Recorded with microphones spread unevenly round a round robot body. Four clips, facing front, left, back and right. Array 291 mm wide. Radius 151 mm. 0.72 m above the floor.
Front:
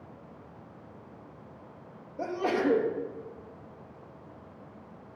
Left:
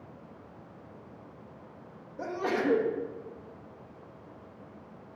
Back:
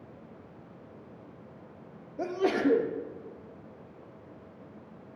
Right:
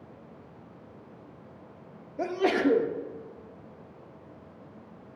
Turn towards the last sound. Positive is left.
turn(degrees=-125)